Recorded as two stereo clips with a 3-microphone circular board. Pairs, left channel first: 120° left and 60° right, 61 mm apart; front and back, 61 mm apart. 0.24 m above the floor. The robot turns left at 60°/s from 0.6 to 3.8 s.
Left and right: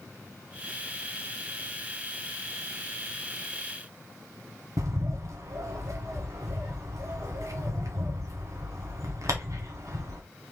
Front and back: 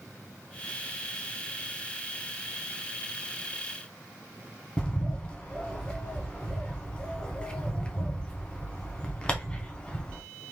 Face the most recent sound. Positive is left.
turn(degrees=-70)